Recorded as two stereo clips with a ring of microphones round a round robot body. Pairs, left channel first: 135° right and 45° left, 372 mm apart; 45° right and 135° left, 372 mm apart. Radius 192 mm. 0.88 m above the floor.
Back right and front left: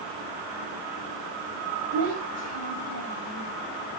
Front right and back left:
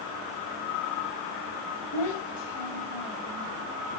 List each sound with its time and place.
1.9 s a child speaking: 5° right, 3.5 m